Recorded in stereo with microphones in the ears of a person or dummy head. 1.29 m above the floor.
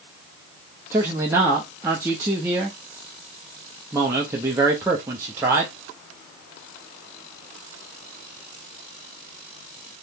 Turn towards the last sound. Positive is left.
turn(degrees=-20)  # may be behind; listen again after turning